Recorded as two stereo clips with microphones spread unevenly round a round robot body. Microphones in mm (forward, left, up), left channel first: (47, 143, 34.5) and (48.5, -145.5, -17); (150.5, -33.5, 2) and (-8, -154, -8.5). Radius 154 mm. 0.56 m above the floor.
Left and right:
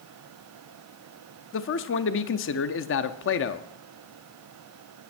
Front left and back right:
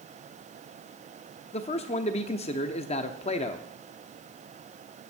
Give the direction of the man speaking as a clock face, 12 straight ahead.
10 o'clock.